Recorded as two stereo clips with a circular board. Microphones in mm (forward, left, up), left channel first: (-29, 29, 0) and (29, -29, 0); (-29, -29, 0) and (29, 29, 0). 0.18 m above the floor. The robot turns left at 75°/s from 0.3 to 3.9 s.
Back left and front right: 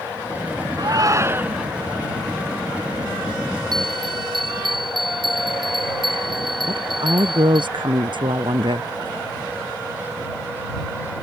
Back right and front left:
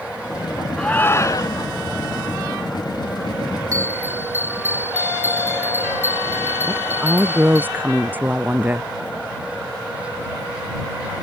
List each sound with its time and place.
0.8 s a shout: 55° right; by 1.7 s 125° right
3.7 s a bell: 5° right; by 7.7 s 20° right
6.7 s a woman speaking: 25° right